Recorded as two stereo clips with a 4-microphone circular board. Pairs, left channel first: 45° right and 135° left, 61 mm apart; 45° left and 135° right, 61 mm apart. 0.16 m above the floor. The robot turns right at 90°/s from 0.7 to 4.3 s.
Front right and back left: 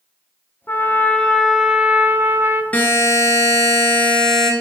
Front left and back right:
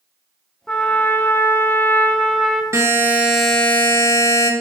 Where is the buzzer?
110° right, 1.4 m; by 4.5 s 30° left, 1.4 m.